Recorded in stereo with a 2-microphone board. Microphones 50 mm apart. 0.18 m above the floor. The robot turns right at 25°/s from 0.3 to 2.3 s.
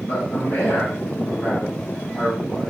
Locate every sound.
0.1 s a man speaking: 140° left, 3.5 m; by 2.7 s 170° right, 3.5 m